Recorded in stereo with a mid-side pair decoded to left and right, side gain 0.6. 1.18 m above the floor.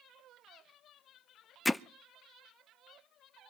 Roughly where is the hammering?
Ahead.